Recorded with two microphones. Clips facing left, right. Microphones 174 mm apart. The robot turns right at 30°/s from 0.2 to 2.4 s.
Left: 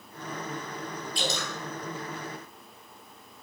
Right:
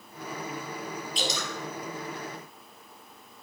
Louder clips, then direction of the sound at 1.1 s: Left 1 dB; 20° right (ahead or behind).